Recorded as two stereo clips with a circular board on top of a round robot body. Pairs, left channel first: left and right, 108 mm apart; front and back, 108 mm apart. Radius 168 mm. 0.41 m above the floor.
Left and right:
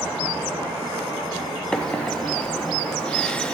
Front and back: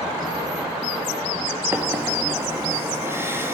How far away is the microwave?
About 0.8 m.